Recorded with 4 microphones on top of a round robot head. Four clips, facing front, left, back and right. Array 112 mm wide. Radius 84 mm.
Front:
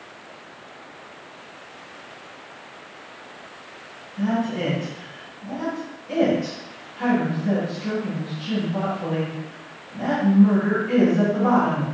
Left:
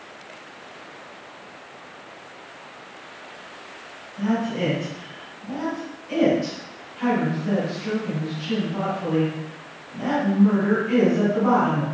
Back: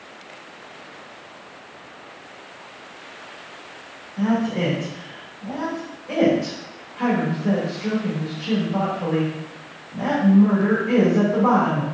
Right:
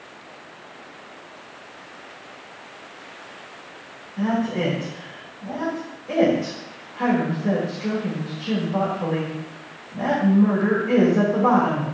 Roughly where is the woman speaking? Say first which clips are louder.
Right 1 dB, back 2 dB; behind right.